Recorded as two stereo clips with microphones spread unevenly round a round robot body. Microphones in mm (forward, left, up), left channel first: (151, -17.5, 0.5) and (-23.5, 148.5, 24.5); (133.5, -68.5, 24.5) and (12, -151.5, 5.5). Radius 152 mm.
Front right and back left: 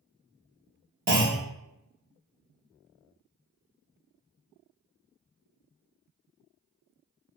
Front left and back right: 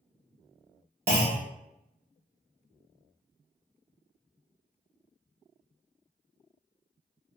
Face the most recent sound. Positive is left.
turn(degrees=-170)